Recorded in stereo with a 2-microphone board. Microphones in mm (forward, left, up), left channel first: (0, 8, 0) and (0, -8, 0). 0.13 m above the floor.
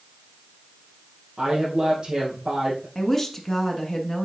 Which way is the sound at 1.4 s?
50° right (ahead or behind).